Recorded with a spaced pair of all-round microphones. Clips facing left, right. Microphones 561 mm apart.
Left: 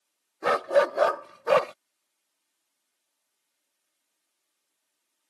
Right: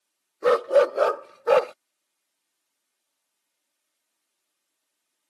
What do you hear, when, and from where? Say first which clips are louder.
0.4 s a dog barking: right 5 dB; 15° left (ahead or behind); by 1.7 s 25° left (ahead or behind)